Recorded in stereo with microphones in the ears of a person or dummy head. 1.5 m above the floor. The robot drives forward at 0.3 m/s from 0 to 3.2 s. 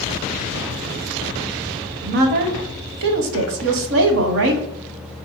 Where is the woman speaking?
50° right (ahead or behind), 0.7 m; by 4.7 s 60° right (ahead or behind), 0.6 m.